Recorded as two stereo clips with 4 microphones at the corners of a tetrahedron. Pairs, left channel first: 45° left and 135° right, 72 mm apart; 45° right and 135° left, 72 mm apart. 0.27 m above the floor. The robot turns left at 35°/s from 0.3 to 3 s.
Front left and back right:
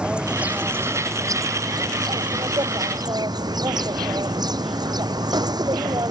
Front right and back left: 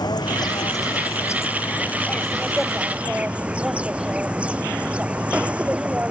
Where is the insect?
60° right; by 6.1 s 155° right.